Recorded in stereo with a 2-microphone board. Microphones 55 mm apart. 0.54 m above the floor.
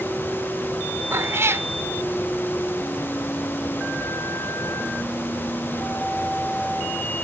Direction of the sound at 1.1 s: 50° right (ahead or behind).